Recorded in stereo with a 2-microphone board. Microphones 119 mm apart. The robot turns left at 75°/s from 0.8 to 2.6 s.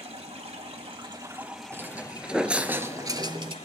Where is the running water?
120° right, 1.9 m; by 3.6 s 105° left, 1.9 m.